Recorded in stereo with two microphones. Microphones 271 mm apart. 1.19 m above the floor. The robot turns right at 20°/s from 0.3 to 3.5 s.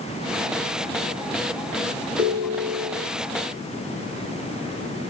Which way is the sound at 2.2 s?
60° right (ahead or behind).